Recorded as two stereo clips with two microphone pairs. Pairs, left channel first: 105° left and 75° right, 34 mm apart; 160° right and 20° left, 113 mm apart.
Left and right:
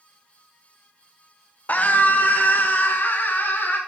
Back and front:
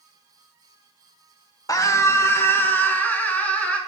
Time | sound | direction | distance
1.7 | a scream | 140° left | 1.2 m